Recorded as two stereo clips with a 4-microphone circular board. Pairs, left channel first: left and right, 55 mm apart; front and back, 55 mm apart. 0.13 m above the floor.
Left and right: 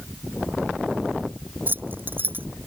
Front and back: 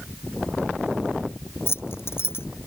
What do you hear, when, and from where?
1.7 s keys jangling: 35° right